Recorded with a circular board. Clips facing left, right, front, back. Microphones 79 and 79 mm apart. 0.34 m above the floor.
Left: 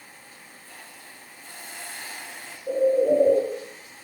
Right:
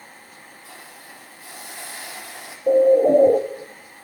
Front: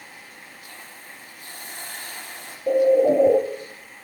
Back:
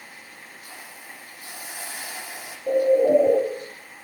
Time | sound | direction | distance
0.6 | a hiss | 95° right | 5.5 m
2.7 | a bird | 75° right | 0.8 m